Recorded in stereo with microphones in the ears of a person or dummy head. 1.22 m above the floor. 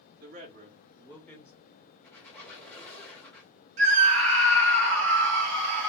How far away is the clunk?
No clunk in this recording.